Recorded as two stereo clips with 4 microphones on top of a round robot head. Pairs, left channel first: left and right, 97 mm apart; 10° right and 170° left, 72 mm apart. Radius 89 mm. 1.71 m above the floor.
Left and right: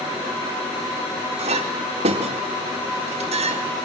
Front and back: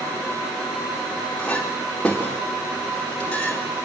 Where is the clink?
90° right, 4 m.